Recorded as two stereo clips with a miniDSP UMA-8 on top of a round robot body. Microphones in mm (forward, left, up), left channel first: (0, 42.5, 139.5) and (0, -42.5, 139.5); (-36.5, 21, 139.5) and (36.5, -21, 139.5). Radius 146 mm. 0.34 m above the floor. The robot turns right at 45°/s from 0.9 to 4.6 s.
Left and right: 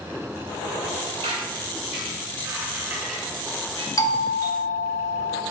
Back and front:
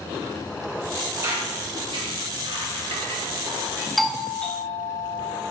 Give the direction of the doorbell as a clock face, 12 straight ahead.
10 o'clock.